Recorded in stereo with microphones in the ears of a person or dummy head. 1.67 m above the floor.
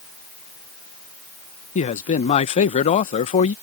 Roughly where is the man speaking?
Left.